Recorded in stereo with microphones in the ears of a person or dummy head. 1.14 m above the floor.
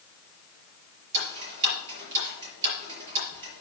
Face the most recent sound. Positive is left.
turn(degrees=-35)  # may be behind; listen again after turning